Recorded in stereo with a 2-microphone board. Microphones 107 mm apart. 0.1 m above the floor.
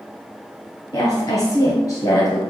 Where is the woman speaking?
35° left (ahead or behind), 1.5 m.